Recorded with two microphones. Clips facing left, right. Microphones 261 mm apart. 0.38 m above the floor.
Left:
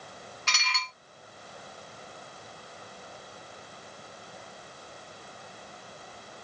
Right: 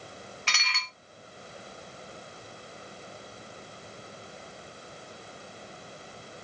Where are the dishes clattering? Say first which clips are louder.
Left 2 dB; 40° left (ahead or behind), 1.0 m.